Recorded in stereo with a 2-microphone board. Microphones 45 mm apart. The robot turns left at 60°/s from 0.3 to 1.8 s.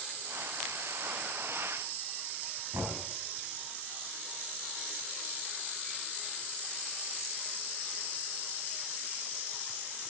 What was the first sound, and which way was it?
Knocking, 60° right (ahead or behind).